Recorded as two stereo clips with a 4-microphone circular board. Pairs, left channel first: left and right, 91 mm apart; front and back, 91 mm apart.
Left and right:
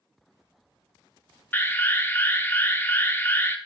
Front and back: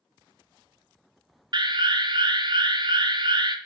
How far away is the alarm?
About 0.6 m.